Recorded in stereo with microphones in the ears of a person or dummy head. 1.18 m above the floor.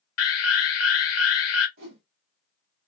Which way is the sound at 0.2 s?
70° left (ahead or behind).